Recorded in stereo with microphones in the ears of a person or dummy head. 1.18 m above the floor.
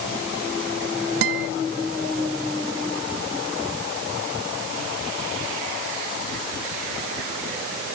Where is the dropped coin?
I don't hear a dropped coin.